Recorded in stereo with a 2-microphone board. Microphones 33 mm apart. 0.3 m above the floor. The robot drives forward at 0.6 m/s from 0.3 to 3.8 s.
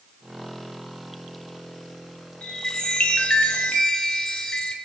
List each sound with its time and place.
2.4 s a chime: 25° left (ahead or behind), 0.9 m; by 4.8 s 30° left (ahead or behind), 0.9 m